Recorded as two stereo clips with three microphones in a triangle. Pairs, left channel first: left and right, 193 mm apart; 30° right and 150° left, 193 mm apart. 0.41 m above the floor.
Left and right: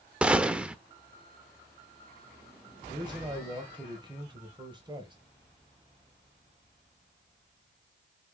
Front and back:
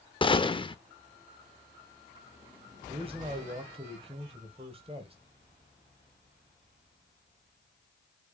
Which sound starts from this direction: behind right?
A man speaking, at 2.9 s.